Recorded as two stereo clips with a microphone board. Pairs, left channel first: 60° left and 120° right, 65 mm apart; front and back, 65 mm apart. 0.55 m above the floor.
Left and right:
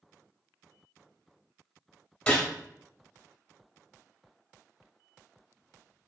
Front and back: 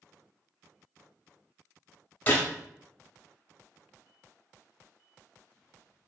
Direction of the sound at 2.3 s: 15° left.